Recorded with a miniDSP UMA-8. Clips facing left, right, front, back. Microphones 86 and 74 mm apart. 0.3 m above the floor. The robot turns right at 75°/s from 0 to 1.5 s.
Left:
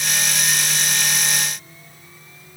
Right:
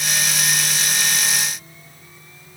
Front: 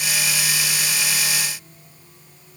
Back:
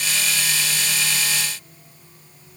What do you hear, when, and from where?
Only background noise.